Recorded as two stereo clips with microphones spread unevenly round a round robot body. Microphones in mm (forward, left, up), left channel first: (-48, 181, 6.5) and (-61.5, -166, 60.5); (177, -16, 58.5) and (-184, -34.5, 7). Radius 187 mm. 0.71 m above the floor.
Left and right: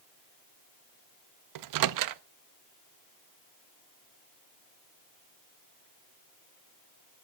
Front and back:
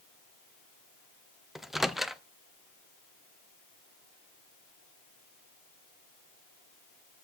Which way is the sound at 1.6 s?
95° right.